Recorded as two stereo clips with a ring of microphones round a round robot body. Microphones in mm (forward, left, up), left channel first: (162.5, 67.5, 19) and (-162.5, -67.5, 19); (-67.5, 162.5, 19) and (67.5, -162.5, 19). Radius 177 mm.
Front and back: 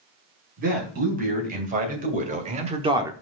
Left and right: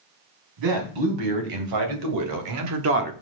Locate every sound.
0.6 s a man speaking: 90° right, 4 m; by 3.1 s 85° right, 0.9 m